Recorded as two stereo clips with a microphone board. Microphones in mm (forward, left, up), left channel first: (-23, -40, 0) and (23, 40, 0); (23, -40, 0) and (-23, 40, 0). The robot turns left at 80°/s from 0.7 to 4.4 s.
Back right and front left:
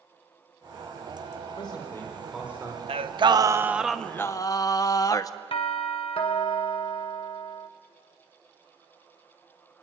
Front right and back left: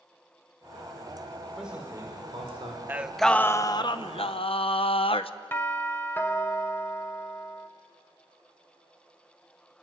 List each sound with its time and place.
1.6 s a man speaking: 150° right, 4.5 m; by 2.8 s 110° left, 4.5 m
2.9 s singing: 50° left, 0.8 m; by 5.3 s 70° right, 0.8 m
5.5 s a doorbell: 125° right, 1.8 m